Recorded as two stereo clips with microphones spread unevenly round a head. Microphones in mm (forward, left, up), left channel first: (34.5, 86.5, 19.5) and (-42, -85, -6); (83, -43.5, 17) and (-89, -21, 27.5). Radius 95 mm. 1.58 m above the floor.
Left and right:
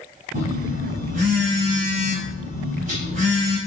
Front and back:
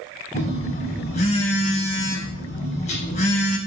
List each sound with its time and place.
0.3 s a phone buzzing: 60° right, 6 m